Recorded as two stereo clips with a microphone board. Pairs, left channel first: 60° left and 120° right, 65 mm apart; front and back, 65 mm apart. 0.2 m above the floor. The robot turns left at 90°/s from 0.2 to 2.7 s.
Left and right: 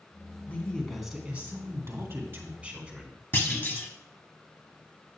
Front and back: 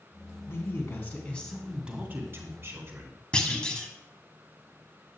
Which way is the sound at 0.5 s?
10° left.